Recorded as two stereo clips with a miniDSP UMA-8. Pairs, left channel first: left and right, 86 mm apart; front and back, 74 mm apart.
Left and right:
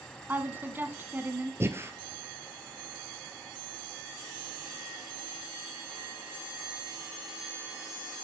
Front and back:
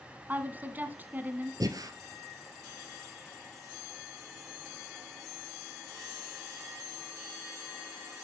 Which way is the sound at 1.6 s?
150° right.